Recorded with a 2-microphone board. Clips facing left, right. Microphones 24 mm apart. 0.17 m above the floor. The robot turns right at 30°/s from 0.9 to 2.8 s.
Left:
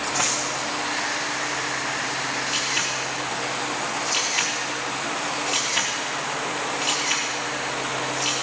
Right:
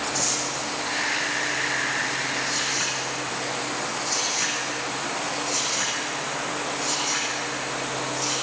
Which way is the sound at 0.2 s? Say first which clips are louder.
Left 4 dB; 70° left (ahead or behind).